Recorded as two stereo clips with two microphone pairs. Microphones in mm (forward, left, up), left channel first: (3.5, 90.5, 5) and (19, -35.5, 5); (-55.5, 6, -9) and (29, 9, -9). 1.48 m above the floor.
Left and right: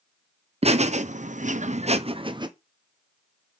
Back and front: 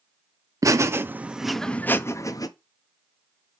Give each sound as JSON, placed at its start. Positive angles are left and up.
{"t": 0.6, "sound": "laughter", "azimuth_deg": -45, "distance_m": 0.9}